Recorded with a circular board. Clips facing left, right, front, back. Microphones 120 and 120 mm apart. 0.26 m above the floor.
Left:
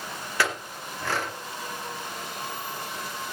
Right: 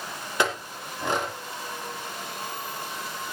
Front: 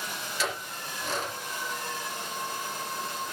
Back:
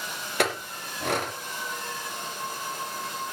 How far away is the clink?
About 3 m.